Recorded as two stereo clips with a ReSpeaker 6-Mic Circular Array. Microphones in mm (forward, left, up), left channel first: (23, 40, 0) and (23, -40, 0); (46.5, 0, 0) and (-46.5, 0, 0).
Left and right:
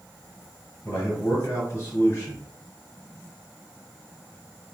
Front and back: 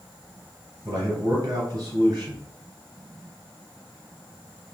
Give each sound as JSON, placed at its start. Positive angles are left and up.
{"t": 0.8, "sound": "a man speaking", "azimuth_deg": 140, "distance_m": 2.0}